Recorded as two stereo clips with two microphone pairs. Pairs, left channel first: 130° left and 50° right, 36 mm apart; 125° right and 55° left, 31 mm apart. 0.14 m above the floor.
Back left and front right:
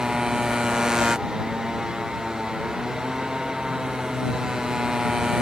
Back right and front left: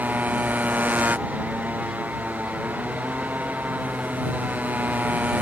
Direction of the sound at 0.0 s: 30° left.